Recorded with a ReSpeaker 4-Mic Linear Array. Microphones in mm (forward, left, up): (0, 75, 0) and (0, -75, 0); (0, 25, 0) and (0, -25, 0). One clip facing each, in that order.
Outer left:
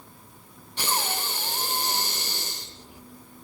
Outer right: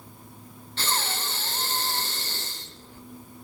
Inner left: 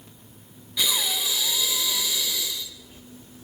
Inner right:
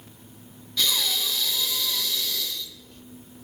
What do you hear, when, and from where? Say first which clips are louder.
0.8 s breathing: outer left 2 dB, even; 15° left (ahead or behind), 0.9 m